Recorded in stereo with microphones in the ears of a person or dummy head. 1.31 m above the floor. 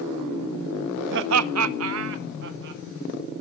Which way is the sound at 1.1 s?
55° right (ahead or behind).